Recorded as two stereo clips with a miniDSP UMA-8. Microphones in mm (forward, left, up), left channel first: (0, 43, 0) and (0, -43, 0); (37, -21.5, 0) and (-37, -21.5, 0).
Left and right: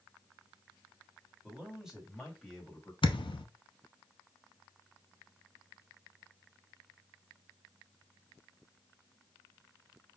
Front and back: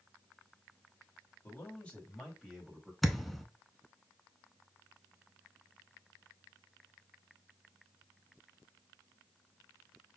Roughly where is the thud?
Left.